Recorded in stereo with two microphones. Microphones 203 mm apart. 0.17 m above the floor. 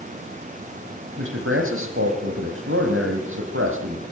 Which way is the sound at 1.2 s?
70° right (ahead or behind).